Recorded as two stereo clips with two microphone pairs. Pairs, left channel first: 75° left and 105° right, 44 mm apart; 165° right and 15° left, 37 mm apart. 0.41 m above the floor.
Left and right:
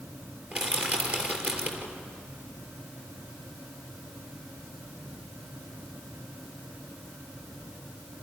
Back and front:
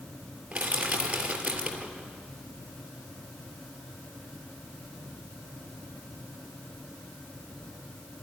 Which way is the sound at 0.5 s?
50° right.